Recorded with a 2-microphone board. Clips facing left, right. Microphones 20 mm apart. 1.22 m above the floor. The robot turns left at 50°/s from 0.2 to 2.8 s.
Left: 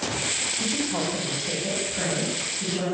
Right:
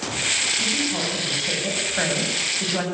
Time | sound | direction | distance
0.6 | a woman speaking | 25° left | 8.5 m